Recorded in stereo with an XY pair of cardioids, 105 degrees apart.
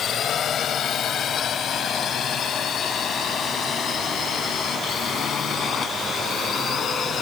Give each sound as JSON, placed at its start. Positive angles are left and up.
{"t": 0.0, "sound": "a drone", "azimuth_deg": 60}